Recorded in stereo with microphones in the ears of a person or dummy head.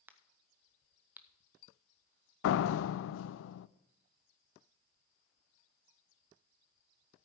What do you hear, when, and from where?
0.1 s a crack: 15° right (ahead or behind), 0.7 m
2.4 s a door slam: 80° left, 0.6 m